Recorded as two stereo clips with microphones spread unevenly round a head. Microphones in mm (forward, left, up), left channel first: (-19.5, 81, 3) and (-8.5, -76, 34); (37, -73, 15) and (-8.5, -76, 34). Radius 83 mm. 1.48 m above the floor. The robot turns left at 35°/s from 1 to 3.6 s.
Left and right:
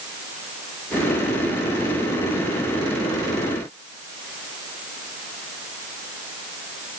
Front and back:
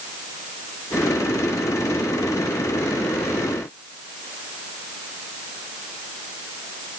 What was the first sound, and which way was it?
Only background noise.